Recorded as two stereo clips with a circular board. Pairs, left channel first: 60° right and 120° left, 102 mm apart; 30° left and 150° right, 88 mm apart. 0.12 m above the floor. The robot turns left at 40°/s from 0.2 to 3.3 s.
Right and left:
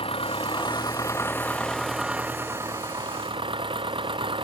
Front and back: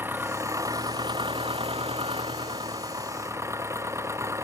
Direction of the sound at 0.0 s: 85° right.